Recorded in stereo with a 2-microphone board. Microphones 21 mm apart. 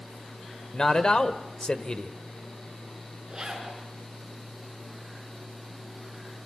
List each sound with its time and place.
0.7 s a man speaking: 40° left (ahead or behind), 1.3 m
3.3 s a zipper: 30° right (ahead or behind), 6.5 m